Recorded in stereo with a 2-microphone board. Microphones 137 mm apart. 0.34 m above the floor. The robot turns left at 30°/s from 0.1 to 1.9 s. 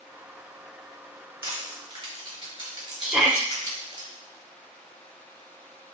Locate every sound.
1.4 s crushing: 35° right (ahead or behind), 2 m; by 4.0 s 45° right (ahead or behind), 2 m
3.0 s a shout: 5° right (ahead or behind), 0.9 m